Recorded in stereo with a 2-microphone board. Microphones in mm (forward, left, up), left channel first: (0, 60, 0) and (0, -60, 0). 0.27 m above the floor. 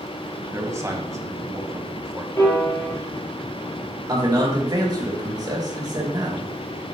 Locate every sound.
0.5 s a man speaking: 25° right (ahead or behind), 1.6 m
2.4 s a piano: 30° left (ahead or behind), 4.5 m
4.1 s a man speaking: 35° right (ahead or behind), 3.5 m